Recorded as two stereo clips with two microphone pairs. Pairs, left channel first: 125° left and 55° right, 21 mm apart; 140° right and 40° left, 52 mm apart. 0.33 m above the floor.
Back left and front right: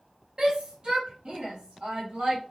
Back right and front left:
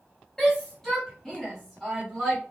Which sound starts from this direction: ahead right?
A shout, at 0.4 s.